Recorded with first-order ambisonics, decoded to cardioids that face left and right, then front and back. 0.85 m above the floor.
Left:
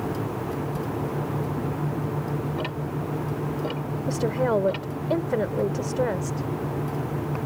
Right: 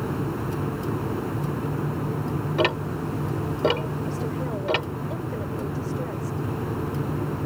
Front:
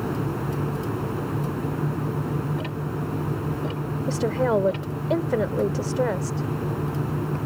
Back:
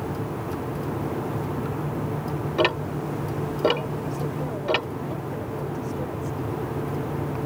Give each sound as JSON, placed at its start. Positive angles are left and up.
{"t": 2.6, "sound": "ticking", "azimuth_deg": -145}
{"t": 4.1, "sound": "a woman speaking", "azimuth_deg": 40}